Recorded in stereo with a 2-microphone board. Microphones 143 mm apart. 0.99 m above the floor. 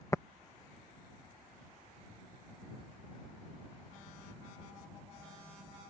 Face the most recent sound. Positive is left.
turn(degrees=20)  # may be behind; listen again after turning